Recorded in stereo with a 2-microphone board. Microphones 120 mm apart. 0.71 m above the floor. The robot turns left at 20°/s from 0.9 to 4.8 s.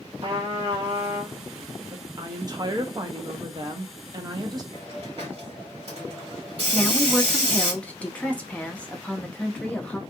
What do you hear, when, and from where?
0.2 s a trumpet: 45° right (ahead or behind), 1.4 m; by 1.4 s 40° right (ahead or behind), 1.4 m
1.9 s a woman speaking: 55° right, 0.7 m; by 4.6 s 110° right, 0.7 m
4.7 s a hiss: 55° right (ahead or behind), 1.6 m
6.7 s a woman speaking: 10° left (ahead or behind), 0.6 m